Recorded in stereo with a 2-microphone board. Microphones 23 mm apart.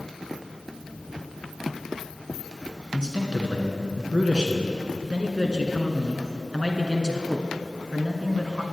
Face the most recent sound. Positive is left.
turn(degrees=-35)  # may be behind; listen again after turning